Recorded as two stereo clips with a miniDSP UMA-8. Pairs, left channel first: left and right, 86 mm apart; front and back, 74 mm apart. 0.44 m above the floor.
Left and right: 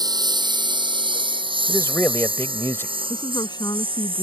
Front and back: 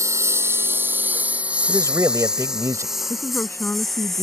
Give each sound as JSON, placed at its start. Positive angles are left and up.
{"t": 0.0, "sound": "a lawn mower", "azimuth_deg": -130}
{"t": 1.7, "sound": "a man speaking", "azimuth_deg": 145}
{"t": 3.1, "sound": "a woman speaking", "azimuth_deg": 55}